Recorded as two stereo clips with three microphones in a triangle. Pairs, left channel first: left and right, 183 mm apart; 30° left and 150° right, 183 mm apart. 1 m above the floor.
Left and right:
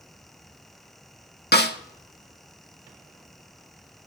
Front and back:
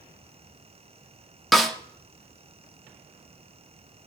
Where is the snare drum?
120° left, 1.2 m.